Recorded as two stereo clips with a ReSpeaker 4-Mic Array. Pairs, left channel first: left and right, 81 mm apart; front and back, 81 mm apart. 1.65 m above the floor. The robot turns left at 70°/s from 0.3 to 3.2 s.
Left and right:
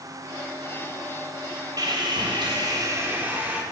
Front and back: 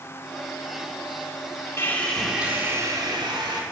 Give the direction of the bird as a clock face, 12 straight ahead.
No bird in this recording.